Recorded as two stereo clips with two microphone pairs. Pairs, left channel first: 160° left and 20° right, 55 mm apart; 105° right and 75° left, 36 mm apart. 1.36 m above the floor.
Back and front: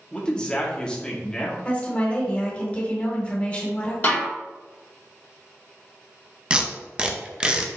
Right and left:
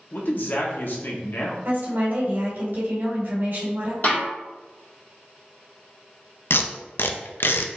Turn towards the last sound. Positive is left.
turn(degrees=-90)